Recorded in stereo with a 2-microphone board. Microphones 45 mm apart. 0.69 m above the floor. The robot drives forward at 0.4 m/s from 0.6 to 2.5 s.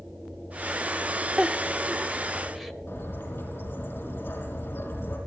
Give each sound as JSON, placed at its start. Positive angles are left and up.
{"t": 1.4, "sound": "a giggle", "side_deg": -20, "distance_m": 0.6}
{"t": 2.9, "sound": "a bird", "side_deg": 60, "distance_m": 5.0}